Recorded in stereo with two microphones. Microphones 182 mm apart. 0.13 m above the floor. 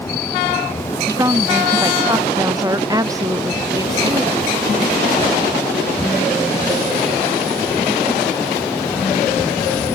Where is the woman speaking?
20° right (ahead or behind).